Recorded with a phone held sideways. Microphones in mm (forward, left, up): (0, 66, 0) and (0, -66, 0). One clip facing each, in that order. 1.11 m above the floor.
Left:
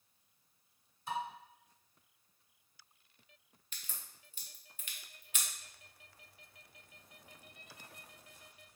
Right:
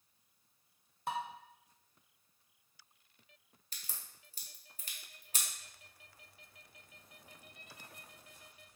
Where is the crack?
35° right (ahead or behind), 0.5 m.